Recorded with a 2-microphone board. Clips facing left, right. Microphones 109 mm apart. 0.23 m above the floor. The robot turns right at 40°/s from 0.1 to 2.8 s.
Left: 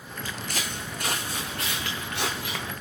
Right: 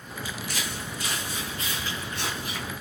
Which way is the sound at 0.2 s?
55° left (ahead or behind).